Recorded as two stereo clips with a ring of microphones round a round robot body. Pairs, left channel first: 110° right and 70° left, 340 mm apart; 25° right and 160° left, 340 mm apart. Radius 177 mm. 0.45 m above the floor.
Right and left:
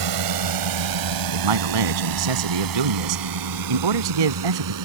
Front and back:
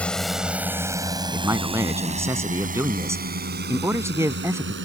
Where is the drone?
65° left; by 4.8 s 100° left.